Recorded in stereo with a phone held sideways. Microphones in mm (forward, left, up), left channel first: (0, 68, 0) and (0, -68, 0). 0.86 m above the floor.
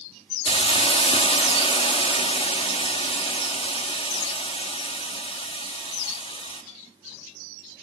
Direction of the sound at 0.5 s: 45° left (ahead or behind).